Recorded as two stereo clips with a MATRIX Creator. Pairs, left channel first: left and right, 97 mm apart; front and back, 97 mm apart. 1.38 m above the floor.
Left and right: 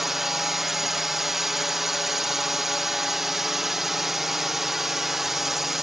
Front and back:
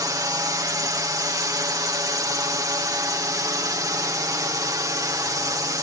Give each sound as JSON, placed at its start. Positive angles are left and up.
{"t": 0.0, "sound": "a drone", "azimuth_deg": -175}